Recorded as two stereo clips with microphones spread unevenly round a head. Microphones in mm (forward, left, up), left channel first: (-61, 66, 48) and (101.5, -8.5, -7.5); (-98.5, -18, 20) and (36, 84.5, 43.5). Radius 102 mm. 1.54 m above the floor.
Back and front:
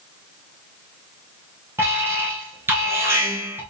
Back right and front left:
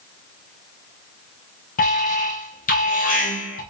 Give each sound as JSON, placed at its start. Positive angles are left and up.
{"t": 1.8, "sound": "an alarm", "azimuth_deg": -100, "distance_m": 2.5}